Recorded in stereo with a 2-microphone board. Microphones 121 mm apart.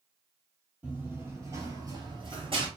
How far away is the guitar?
I don't hear a guitar.